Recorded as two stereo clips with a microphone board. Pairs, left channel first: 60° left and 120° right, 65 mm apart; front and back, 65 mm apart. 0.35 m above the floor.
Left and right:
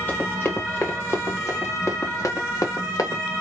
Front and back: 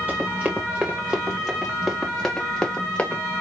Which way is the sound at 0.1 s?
120° left.